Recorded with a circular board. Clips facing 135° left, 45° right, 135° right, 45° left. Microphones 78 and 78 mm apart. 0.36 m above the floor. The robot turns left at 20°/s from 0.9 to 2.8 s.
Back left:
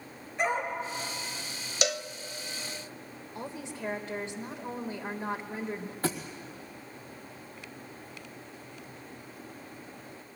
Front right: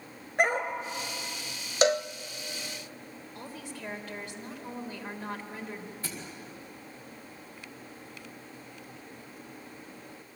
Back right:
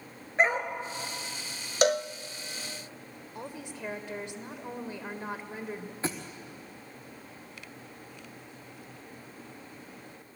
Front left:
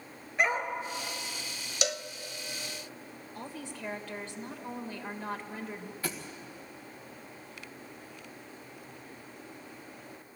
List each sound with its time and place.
0.4 s a dog barking: 75° right, 1.7 m
1.8 s a cowbell: 95° right, 0.5 m; by 2.1 s 100° right, 0.5 m
3.4 s a woman speaking: 170° left, 1.4 m
6.0 s a thud: 165° left, 2.0 m